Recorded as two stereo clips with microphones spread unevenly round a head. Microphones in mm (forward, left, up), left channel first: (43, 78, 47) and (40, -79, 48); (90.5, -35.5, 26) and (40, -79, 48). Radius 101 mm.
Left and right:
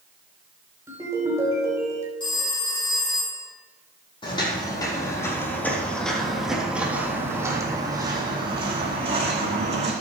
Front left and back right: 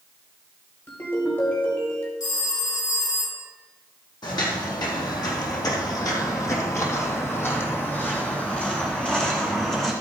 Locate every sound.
0.9 s a ringtone: 20° right, 5 m
2.2 s a phone ringing: 30° left, 5 m
4.2 s footsteps: 30° left, 4 m; by 9.9 s 50° right, 5 m